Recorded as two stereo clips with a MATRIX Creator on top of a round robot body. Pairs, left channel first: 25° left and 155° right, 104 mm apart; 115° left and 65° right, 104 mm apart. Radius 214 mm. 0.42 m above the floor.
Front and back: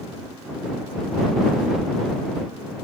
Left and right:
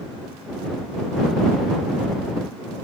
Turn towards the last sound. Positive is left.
No sound to turn to.